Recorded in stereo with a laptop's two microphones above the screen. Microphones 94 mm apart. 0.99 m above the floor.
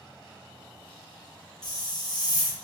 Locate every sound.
1.6 s a hiss: 45° left (ahead or behind), 0.7 m